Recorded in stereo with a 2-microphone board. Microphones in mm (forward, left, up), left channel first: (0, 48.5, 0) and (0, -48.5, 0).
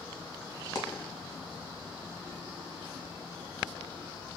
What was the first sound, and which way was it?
A dropped coin, 40° left (ahead or behind).